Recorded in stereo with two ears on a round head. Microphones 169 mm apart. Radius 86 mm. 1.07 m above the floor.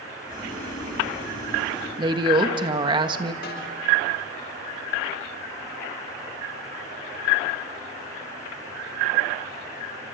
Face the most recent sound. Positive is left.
turn(degrees=55)  # may be behind; listen again after turning